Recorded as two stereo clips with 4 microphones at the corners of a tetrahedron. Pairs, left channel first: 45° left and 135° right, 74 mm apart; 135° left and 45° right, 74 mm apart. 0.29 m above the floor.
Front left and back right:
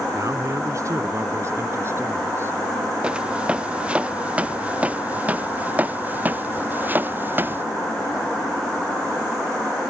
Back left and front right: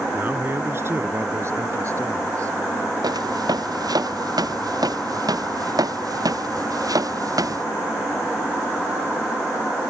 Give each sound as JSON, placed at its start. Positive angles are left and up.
{"t": 0.1, "sound": "a man speaking", "azimuth_deg": -100}
{"t": 3.0, "sound": "footsteps", "azimuth_deg": -60}